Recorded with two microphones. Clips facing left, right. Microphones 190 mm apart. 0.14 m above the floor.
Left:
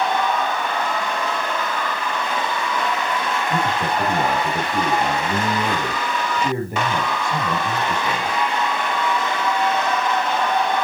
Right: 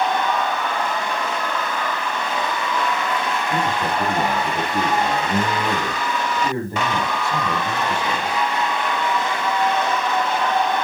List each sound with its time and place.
3.5 s a man speaking: 15° left (ahead or behind), 4 m